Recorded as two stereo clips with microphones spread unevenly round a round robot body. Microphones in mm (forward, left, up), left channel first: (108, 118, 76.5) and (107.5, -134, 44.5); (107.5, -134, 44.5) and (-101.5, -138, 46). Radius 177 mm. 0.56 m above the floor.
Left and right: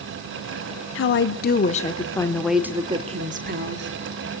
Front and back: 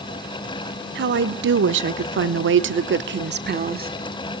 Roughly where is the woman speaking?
Behind left.